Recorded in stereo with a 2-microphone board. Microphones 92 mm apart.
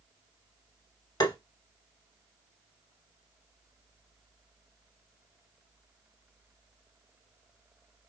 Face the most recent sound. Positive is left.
turn(degrees=45)  # may be behind; listen again after turning